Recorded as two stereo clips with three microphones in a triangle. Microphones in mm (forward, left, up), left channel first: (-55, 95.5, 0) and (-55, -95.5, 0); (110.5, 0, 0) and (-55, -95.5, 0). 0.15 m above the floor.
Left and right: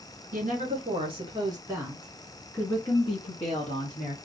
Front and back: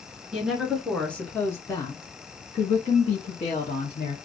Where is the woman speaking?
65° right, 1.7 m; by 4.2 s 60° left, 1.7 m.